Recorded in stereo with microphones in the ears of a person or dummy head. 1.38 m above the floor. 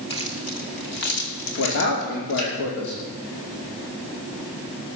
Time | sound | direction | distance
0.1 | keys jangling | 30° left (ahead or behind) | 1.8 m
1.6 | a man speaking | 70° left (ahead or behind) | 2.5 m